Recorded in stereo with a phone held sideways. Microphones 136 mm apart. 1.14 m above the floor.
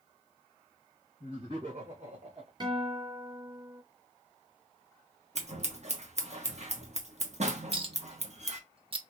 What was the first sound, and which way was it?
Laughter, 60° right (ahead or behind).